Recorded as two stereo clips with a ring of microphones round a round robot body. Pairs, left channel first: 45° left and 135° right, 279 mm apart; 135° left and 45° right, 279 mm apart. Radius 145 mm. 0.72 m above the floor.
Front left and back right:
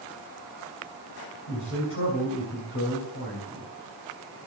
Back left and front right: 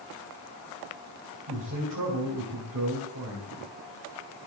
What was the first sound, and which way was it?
A man speaking, straight ahead.